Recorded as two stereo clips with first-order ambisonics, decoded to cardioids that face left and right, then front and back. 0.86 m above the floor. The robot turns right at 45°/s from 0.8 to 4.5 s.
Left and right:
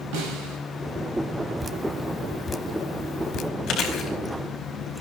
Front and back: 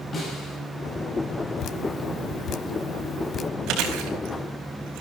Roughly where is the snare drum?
Right.